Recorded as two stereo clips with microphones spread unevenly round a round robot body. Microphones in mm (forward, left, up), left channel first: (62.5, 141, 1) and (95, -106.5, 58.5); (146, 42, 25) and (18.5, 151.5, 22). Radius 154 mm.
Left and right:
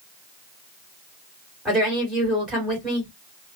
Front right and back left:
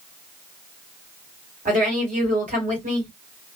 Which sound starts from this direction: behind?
A woman speaking, at 1.6 s.